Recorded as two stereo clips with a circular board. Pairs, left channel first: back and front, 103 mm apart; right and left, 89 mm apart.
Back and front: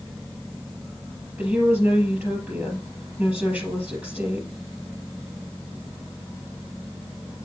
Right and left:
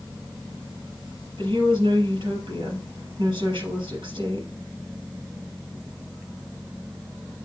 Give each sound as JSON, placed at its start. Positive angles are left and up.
{"t": 1.4, "sound": "a woman speaking", "azimuth_deg": 70, "distance_m": 4.0}